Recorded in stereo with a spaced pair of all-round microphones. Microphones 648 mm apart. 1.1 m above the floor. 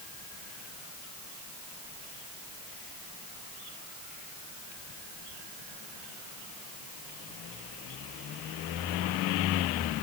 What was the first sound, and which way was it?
Only background noise.